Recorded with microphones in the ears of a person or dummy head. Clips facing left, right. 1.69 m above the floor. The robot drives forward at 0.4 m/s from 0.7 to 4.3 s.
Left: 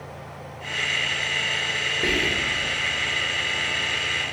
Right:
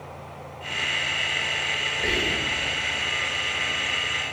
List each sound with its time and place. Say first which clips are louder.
2.0 s whispering: left 2 dB; 65° left (ahead or behind), 1.0 m; by 2.6 s 70° left (ahead or behind), 1.0 m